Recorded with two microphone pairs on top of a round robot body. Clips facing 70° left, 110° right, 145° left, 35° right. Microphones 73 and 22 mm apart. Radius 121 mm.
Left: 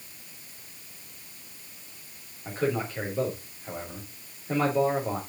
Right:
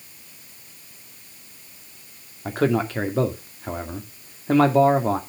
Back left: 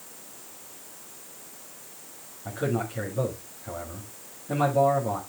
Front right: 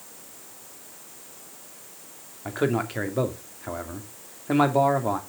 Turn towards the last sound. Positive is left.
turn(degrees=-85)